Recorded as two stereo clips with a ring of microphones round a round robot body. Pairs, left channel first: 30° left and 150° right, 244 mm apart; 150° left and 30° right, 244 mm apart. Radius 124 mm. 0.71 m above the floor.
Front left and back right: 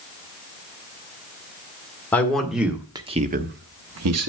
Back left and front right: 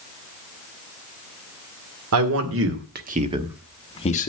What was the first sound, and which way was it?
A man speaking, 55° right.